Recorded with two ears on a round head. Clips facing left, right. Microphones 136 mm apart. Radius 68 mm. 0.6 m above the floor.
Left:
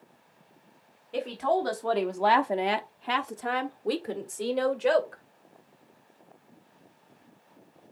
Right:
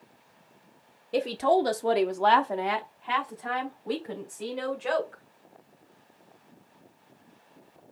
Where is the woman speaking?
45° right (ahead or behind), 0.8 m; by 5.2 s 75° left (ahead or behind), 1.9 m.